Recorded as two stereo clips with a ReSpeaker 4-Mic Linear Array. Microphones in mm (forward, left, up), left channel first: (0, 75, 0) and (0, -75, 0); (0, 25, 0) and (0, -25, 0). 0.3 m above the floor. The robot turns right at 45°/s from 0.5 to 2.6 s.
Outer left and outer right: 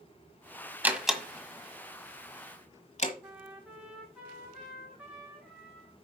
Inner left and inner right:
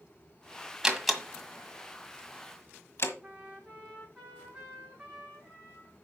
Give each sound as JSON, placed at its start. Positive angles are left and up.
{"t": 0.8, "sound": "a door slam", "side_deg": -10, "distance_m": 1.4}
{"t": 3.2, "sound": "a trumpet", "side_deg": -5, "distance_m": 3.0}